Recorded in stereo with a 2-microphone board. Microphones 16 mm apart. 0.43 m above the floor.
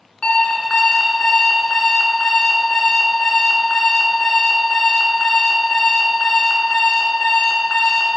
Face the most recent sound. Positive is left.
turn(degrees=85)